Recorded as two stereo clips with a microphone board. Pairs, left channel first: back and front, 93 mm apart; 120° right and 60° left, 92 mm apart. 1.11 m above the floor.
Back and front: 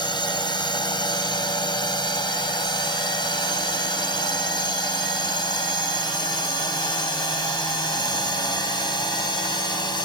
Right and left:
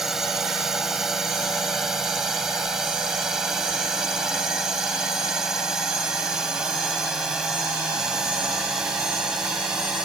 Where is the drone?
145° left.